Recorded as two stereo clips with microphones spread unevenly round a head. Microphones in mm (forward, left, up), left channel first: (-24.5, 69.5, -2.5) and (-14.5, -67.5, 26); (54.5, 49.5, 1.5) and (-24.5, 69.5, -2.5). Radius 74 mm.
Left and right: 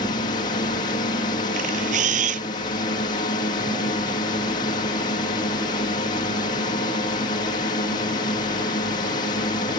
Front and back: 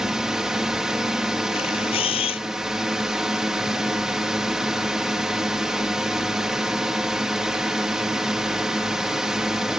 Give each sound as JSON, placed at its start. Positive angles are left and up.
{"t": 0.0, "sound": "a drone", "azimuth_deg": 85}
{"t": 1.5, "sound": "a camera shutter", "azimuth_deg": -45}